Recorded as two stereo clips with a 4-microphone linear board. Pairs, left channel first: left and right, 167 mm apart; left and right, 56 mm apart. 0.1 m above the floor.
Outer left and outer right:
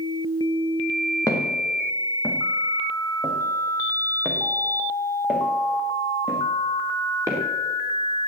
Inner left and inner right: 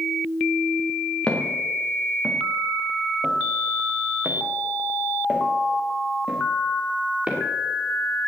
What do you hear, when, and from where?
1.3 s footsteps: 20° left (ahead or behind), 4 m; by 7.4 s 20° right (ahead or behind), 5.5 m